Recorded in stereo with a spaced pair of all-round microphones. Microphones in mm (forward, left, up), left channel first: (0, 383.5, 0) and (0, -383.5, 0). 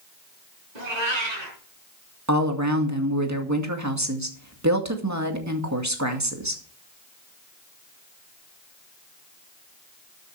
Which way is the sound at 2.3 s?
20° right (ahead or behind).